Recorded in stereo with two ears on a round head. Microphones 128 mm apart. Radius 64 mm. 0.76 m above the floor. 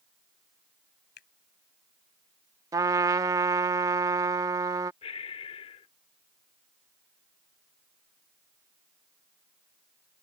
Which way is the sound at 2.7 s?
25° right (ahead or behind).